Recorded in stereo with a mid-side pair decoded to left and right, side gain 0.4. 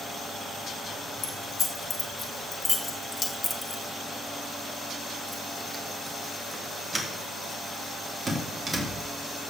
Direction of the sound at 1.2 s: 55° left.